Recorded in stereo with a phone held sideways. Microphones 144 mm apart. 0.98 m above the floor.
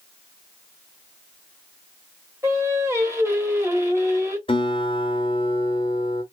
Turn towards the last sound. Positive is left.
turn(degrees=35)  # may be behind; listen again after turning